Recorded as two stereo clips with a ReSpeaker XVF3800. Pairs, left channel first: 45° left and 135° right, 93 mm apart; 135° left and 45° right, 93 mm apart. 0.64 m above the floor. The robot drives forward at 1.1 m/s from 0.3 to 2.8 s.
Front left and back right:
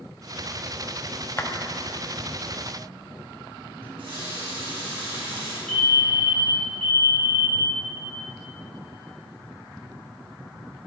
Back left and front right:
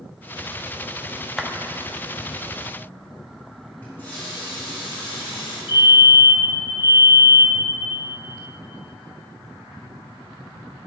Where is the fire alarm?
125° left, 4 m.